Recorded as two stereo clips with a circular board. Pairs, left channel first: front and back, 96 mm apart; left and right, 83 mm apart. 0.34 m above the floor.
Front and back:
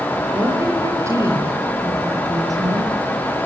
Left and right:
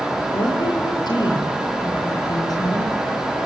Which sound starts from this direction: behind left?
A woman speaking, at 0.3 s.